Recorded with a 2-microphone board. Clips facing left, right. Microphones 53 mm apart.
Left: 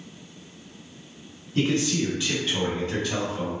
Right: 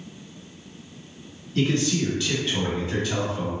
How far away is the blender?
I don't hear a blender.